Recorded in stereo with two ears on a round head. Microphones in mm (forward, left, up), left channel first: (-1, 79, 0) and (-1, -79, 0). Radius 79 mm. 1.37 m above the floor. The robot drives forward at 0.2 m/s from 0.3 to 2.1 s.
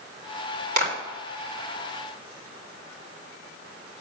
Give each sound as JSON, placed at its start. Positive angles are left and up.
{"t": 0.8, "sound": "a clap", "side_deg": -60, "distance_m": 3.5}